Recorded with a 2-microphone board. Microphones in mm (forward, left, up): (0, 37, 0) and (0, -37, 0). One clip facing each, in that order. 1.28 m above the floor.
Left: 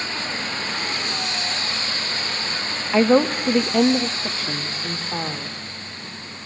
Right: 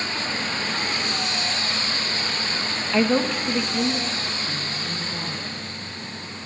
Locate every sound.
2.9 s a woman speaking: 20° left (ahead or behind), 1.1 m; by 5.6 s 75° left (ahead or behind), 3.5 m